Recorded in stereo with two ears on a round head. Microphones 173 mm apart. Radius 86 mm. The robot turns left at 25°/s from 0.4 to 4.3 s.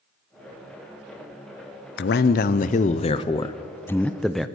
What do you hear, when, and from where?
2.0 s a man speaking: 60° left, 0.5 m; by 4.5 s straight ahead, 0.5 m